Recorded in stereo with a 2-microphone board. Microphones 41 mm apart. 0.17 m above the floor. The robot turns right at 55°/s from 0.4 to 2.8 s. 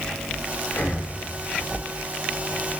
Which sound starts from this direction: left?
Breathing, at 0.7 s.